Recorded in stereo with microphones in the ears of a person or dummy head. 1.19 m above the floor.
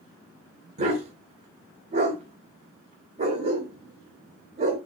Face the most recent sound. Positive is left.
turn(degrees=-35)  # may be behind; listen again after turning